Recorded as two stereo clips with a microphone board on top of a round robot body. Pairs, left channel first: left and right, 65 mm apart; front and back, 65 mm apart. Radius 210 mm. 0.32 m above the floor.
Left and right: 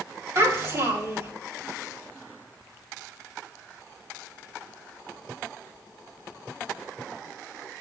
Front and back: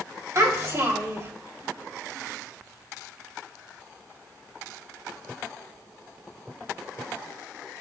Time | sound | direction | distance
0.3 | a child speaking | 135° right | 3 m